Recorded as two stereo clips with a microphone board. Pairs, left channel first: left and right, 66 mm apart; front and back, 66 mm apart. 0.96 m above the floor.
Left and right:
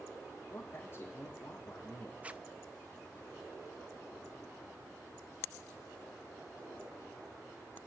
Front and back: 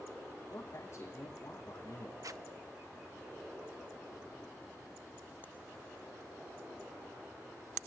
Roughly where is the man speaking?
Ahead left.